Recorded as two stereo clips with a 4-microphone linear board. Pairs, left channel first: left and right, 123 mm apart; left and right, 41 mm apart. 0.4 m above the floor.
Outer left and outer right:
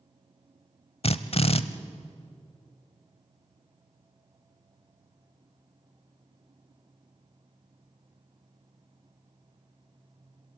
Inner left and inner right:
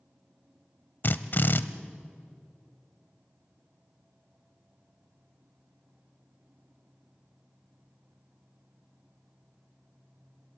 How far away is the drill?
About 0.8 m.